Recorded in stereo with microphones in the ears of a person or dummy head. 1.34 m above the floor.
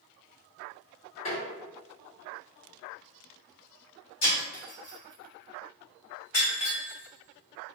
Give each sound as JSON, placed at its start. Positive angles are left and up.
{"t": 1.2, "sound": "tapping", "side_deg": 35, "distance_m": 1.8}
{"t": 4.2, "sound": "breaking glass", "side_deg": 40, "distance_m": 1.4}